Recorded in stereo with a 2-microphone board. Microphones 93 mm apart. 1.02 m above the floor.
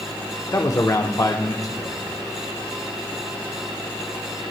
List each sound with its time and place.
0.5 s a man speaking: 35° left (ahead or behind), 0.8 m